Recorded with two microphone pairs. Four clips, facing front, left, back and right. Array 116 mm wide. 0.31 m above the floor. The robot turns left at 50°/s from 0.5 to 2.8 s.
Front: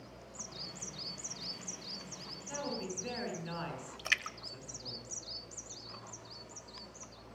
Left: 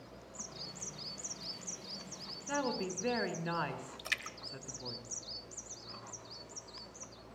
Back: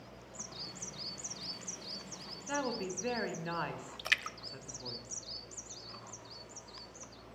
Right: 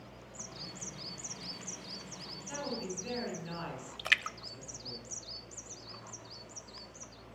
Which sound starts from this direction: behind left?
A woman speaking, at 2.5 s.